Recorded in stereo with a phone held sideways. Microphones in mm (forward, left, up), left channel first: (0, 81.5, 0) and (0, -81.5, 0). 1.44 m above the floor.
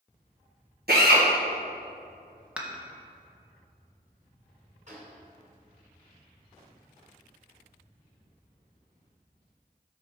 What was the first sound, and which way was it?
A drill, 75° right (ahead or behind).